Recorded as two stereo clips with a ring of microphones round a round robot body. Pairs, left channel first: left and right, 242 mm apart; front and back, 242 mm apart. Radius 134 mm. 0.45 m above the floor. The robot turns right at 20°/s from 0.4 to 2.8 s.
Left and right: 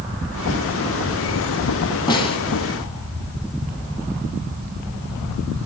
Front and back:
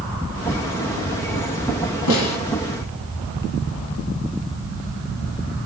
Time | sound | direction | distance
2.1 | a snare drum | 20° left | 2.0 m